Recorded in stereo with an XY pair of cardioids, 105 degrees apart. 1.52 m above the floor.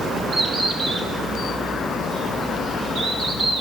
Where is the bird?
45° right, 1.9 m.